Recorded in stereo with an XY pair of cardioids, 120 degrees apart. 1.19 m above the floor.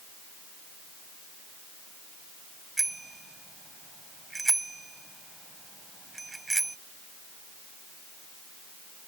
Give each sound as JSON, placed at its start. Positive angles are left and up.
{"t": 2.8, "sound": "a bicycle bell", "azimuth_deg": -20}